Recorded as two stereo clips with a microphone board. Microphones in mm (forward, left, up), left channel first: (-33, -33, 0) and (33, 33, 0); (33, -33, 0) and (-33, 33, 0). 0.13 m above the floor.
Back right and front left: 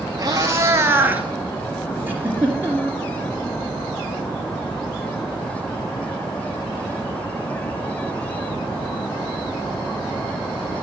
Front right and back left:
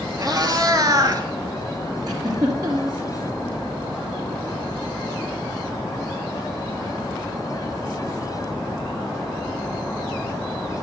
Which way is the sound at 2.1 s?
110° left.